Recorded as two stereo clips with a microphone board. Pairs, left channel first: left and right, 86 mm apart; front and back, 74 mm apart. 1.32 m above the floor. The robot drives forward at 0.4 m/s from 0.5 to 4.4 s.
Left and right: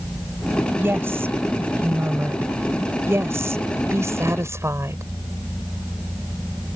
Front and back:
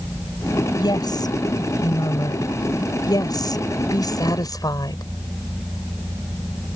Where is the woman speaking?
25° right; by 5.0 s 30° right.